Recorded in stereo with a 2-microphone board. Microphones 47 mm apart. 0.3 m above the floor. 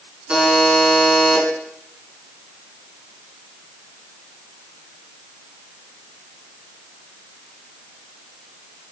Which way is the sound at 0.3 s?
15° right (ahead or behind).